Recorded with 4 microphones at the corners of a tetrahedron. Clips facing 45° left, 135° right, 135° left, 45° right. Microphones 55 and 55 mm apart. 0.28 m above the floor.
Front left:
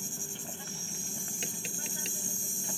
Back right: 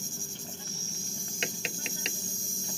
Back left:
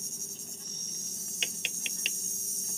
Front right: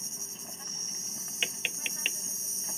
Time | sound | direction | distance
0.0 | an insect | 25° right | ?
1.4 | tapping | 120° right | ?